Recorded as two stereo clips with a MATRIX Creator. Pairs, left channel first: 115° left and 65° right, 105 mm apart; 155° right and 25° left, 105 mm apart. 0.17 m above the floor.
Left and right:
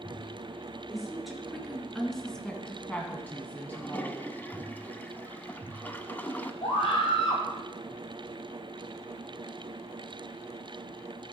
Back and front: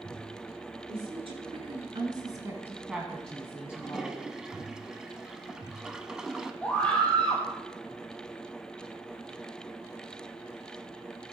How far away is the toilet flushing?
About 0.6 m.